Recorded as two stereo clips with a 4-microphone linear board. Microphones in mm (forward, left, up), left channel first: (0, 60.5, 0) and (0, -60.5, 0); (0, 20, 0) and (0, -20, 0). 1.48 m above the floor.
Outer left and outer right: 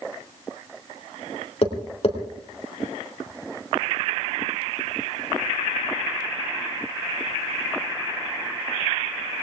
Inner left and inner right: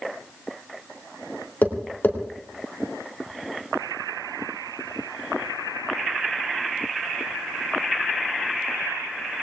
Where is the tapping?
55° left (ahead or behind), 3 m.